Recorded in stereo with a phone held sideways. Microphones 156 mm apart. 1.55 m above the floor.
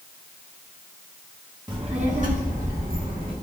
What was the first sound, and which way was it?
A child speaking, 30° right (ahead or behind).